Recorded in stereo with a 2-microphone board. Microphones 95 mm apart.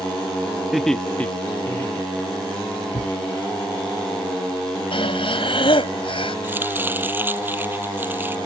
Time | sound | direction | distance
0.7 | laughter | 5° right (ahead or behind) | ?
2.9 | a thud | 80° left | ?
4.9 | breathing | 65° left (ahead or behind) | ?
6.4 | chopping | 20° right (ahead or behind) | ?